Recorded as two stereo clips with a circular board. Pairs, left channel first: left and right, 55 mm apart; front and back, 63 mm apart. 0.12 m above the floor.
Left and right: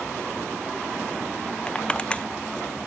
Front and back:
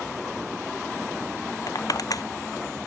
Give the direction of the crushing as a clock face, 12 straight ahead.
11 o'clock.